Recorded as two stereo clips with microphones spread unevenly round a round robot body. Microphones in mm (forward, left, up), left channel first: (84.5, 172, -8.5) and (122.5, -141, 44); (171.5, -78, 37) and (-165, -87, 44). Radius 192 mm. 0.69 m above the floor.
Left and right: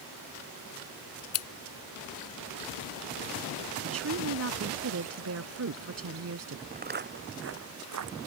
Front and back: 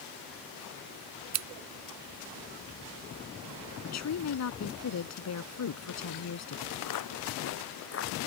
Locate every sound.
1.3 s scissors: 135° left
3.8 s a woman speaking: 40° right
6.7 s footsteps: 20° right; by 8.3 s 55° right